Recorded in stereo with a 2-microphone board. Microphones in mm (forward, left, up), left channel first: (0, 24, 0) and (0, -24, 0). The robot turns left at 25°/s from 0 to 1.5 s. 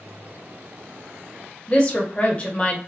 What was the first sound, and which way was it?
A woman speaking, 25° left (ahead or behind).